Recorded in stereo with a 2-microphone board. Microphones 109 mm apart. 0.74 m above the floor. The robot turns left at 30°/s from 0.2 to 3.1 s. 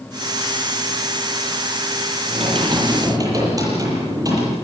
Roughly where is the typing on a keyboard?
Right.